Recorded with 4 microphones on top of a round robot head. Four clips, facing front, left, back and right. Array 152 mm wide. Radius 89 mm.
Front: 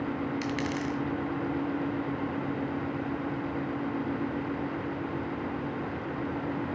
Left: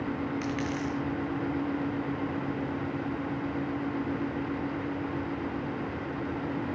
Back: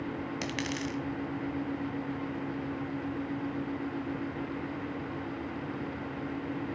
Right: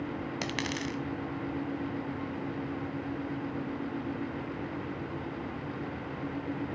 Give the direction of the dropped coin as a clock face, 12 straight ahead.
3 o'clock.